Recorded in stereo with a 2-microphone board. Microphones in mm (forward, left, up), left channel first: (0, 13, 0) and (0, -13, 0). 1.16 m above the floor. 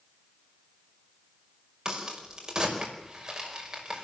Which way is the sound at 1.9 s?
20° right (ahead or behind).